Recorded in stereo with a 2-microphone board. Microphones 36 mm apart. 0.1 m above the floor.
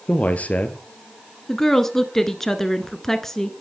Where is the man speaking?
45° left (ahead or behind), 1.8 m.